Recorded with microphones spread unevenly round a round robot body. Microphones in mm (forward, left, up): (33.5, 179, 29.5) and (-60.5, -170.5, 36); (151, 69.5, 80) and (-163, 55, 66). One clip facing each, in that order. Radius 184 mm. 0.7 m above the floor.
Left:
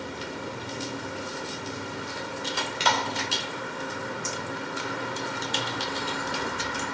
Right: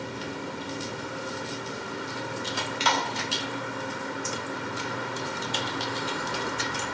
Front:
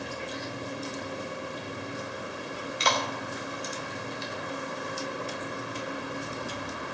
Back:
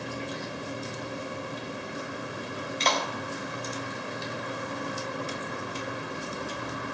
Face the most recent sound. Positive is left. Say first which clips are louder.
# even, even
turn(degrees=80)